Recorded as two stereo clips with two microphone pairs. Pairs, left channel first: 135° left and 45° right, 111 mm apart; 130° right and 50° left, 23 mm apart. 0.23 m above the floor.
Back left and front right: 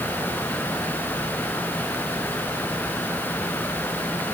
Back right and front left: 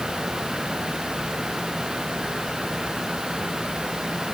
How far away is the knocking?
I don't hear knocking.